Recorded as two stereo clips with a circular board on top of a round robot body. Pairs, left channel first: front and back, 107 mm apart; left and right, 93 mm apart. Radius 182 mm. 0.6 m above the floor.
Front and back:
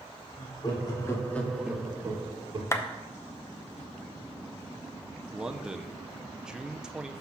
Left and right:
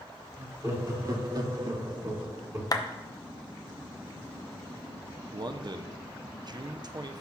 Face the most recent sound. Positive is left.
turn(degrees=-100)